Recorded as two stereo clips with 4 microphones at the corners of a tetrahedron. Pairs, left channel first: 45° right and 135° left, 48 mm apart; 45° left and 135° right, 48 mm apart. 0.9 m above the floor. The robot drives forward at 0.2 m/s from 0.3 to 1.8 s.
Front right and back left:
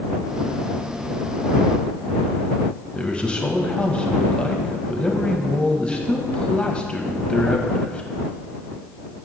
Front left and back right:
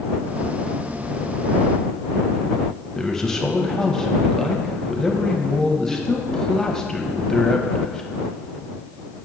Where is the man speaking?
15° right, 0.6 m.